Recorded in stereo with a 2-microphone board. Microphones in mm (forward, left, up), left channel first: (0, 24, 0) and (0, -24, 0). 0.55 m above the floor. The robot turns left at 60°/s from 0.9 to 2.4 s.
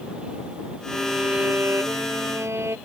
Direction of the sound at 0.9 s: 15° right.